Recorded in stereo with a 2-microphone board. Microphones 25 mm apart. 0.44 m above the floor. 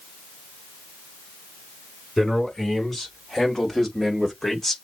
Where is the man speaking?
10° left (ahead or behind), 4.5 m; by 4.8 s 15° left (ahead or behind), 1.4 m.